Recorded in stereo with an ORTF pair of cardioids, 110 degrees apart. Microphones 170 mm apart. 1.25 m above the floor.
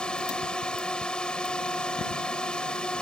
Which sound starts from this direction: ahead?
A drone, at 0.0 s.